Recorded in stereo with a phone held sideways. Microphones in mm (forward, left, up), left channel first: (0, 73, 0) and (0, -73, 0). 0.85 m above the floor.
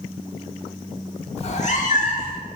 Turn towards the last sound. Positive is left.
turn(degrees=60)  # may be behind; listen again after turning